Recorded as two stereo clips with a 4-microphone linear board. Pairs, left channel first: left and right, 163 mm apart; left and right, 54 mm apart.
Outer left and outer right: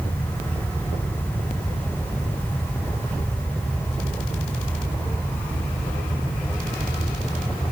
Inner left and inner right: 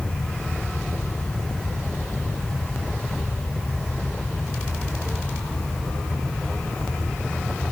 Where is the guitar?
I don't hear a guitar.